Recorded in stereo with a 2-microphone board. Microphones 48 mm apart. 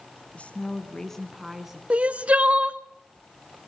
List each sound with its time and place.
0.3 s a woman speaking: 30° left (ahead or behind), 1.7 m; by 1.8 s 10° right (ahead or behind), 1.8 m
1.9 s crying: 25° right (ahead or behind), 0.7 m